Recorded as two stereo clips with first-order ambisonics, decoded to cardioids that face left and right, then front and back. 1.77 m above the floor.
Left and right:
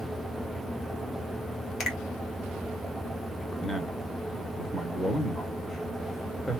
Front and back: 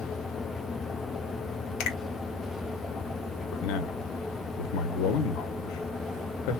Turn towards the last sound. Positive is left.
turn(degrees=5)